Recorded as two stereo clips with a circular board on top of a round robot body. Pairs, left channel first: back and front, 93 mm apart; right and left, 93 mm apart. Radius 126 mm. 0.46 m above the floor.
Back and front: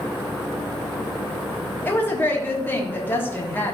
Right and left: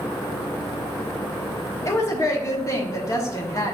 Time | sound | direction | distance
1.9 | a woman speaking | 125° right | 1.4 m